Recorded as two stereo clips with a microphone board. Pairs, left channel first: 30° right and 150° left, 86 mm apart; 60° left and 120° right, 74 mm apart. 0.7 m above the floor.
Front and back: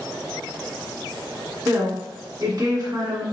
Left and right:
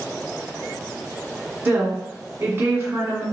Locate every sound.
1.6 s a woman speaking: straight behind, 1.4 m